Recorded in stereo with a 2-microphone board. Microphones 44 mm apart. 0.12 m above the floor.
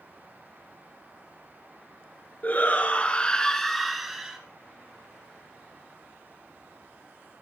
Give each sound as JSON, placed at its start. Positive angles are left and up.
{"t": 2.4, "sound": "a shout", "side_deg": 35, "distance_m": 1.8}